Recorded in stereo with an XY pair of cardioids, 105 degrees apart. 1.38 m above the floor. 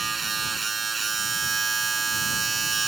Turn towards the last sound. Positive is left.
turn(degrees=-30)